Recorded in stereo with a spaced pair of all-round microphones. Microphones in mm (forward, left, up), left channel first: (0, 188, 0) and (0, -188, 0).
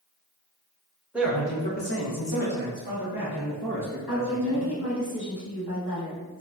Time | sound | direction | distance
1.1 | a man speaking | 5° right (ahead or behind) | 1.2 m
4.1 | a woman speaking | 80° left | 1.5 m